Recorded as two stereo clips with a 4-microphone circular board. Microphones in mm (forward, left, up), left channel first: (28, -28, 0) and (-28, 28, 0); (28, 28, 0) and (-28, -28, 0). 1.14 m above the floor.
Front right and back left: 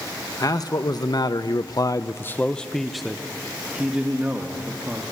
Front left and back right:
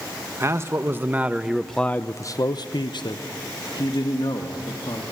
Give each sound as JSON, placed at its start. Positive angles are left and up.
{"t": 0.4, "sound": "a man speaking", "azimuth_deg": -80, "distance_m": 1.2}